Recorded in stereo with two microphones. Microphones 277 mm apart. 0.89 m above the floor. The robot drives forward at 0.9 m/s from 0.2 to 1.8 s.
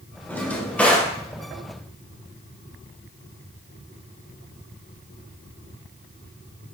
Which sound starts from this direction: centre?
A drawer, at 0.3 s.